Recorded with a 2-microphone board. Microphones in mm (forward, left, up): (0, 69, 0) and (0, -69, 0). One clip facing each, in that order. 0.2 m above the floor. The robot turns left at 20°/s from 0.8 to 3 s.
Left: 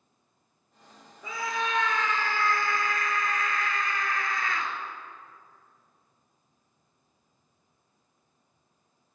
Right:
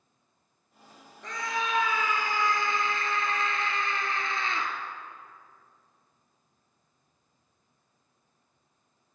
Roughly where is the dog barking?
No dog barking in this recording.